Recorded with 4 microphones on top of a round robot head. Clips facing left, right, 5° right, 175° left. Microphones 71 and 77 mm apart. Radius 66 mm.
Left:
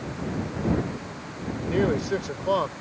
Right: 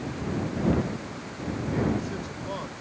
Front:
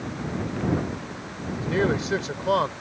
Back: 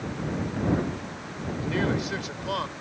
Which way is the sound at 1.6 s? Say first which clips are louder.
Left 4 dB, front 3 dB; 60° left.